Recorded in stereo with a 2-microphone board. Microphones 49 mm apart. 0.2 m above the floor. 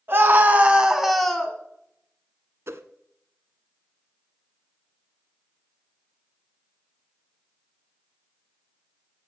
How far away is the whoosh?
About 0.7 m.